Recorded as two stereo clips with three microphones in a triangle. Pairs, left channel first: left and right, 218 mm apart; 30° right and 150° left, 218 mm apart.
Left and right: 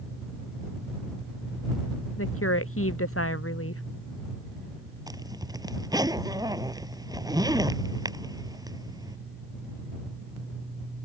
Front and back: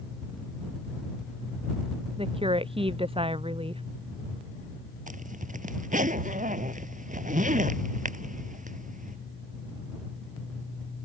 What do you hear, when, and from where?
2.2 s a woman speaking: 85° left
5.1 s a zipper: 160° right